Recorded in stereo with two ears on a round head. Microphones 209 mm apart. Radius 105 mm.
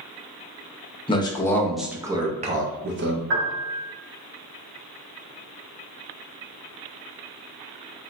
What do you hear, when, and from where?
1.1 s a man speaking: 25° left (ahead or behind), 0.9 m; by 3.2 s 55° right (ahead or behind), 0.9 m
3.3 s a piano: 55° right (ahead or behind), 1.0 m